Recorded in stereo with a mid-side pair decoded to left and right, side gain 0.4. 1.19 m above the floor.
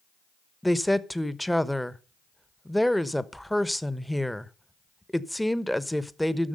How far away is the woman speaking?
About 1.0 m.